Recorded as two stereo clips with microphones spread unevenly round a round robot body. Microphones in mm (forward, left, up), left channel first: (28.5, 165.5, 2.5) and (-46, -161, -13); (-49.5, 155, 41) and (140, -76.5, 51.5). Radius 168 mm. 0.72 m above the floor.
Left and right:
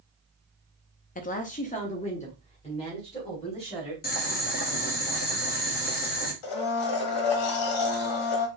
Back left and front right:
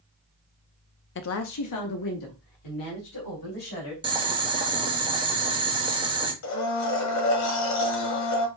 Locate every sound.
1.1 s a woman speaking: 135° left, 0.5 m; by 3.9 s 150° left, 3 m
4.0 s boiling: 20° left, 1.3 m
6.4 s a blender: 95° left, 1.3 m